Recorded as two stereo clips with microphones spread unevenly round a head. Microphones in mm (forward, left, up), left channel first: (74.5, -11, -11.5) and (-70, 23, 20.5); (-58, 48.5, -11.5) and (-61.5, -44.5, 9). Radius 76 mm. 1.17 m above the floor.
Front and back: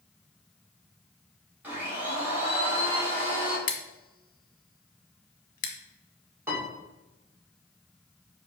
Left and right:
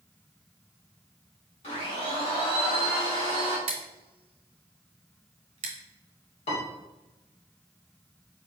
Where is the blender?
85° left, 2 m.